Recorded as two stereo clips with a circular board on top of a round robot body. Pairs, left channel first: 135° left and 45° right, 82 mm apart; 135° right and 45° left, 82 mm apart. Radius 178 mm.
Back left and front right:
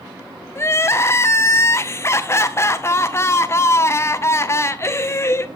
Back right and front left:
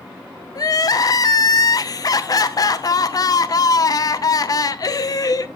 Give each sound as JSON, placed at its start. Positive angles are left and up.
{"t": 0.6, "sound": "crying", "azimuth_deg": -175, "distance_m": 0.6}